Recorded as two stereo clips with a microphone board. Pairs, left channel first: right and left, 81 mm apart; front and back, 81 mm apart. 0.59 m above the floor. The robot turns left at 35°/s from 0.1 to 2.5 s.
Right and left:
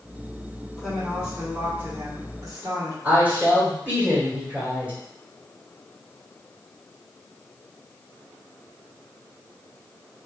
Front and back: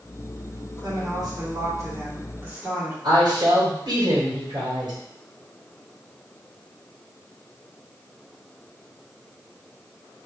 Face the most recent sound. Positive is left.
turn(degrees=155)